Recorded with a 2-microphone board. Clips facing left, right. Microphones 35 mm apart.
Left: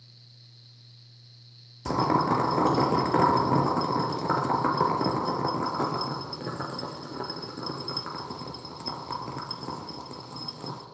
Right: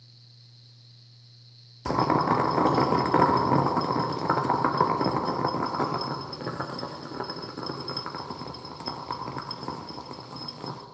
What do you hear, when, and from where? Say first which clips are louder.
1.9 s boiling: right 1 dB; 20° right (ahead or behind), 1.6 m